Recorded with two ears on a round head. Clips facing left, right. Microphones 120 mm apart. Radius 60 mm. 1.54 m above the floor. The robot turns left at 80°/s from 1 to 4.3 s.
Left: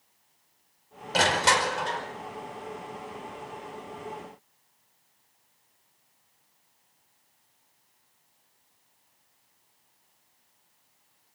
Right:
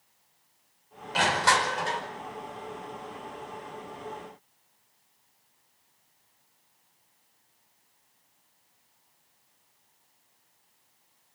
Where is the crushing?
50° left, 5 m; by 2.0 s 15° right, 5 m.